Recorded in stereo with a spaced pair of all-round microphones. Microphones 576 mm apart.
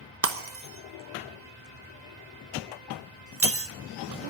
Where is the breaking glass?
25° right (ahead or behind), 0.9 m.